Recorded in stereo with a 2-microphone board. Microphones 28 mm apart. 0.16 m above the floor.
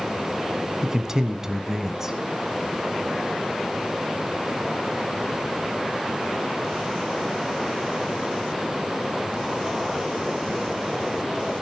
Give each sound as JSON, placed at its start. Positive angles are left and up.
{"t": 0.8, "sound": "a man speaking", "side_deg": -20, "distance_m": 1.3}